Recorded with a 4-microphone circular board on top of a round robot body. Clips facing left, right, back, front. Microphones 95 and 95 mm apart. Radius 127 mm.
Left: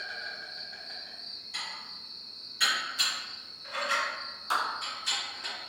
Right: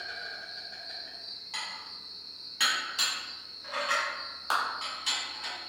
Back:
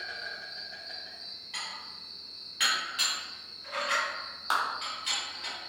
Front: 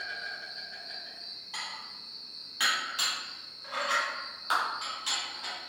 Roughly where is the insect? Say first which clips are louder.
Left 1 dB, front 1 dB; right.